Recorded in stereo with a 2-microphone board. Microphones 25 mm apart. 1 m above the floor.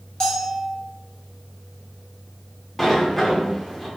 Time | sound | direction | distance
0.2 | a bell | 25° left (ahead or behind) | 0.6 m
2.8 | a sliding door | 10° left (ahead or behind) | 0.5 m